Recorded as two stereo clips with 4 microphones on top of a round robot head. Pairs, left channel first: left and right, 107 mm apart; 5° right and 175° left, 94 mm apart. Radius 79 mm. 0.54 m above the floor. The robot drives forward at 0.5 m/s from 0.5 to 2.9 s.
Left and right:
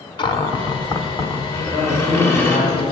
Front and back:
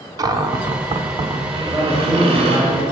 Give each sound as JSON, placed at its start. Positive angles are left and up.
{"t": 0.2, "sound": "a cupboard door", "azimuth_deg": 130, "distance_m": 0.8}
{"t": 1.6, "sound": "a man speaking", "azimuth_deg": 95, "distance_m": 3.0}